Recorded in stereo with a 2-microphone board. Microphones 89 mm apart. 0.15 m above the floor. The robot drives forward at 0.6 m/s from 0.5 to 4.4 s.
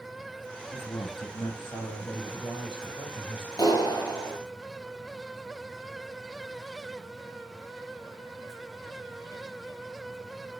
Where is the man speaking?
55° left (ahead or behind), 4 m; by 3.5 s 70° left (ahead or behind), 3.5 m.